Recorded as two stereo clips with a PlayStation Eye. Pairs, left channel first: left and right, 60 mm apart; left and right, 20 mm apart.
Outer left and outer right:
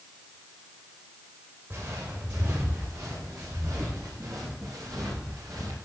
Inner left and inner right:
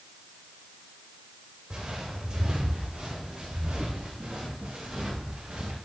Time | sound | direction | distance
1.7 | footsteps | 50° right (ahead or behind) | 8.5 m